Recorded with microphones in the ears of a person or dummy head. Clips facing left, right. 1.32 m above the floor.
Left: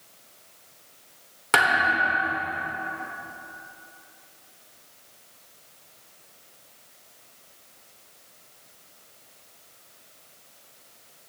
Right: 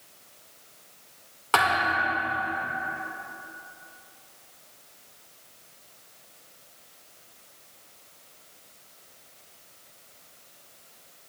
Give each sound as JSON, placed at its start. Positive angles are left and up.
{"t": 1.5, "sound": "a thud", "side_deg": 20, "distance_m": 1.6}